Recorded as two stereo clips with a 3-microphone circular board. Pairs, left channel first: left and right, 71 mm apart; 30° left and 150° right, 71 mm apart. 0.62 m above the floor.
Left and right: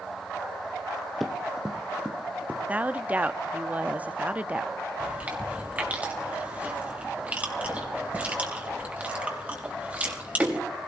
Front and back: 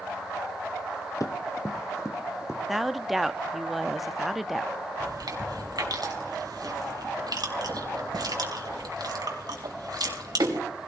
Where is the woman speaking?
65° right, 0.7 m.